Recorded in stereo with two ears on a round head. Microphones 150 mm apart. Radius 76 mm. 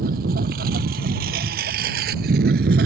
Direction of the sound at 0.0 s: 55° right (ahead or behind).